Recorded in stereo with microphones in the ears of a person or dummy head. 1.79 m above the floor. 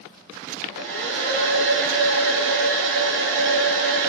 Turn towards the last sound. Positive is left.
turn(degrees=-65)  # may be behind; listen again after turning